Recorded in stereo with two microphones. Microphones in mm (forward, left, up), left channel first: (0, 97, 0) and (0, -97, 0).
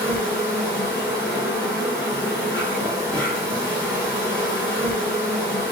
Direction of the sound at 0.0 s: 10° left (ahead or behind).